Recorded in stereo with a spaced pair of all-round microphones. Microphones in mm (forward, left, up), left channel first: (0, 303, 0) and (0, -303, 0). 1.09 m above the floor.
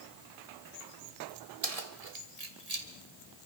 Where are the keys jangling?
70° right (ahead or behind), 2 m; by 2.9 s 85° right, 2.5 m.